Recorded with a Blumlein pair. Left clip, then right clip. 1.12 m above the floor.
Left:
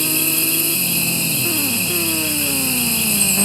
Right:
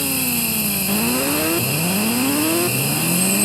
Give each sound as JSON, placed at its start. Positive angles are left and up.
{"t": 0.0, "sound": "an insect", "azimuth_deg": 60, "distance_m": 3.5}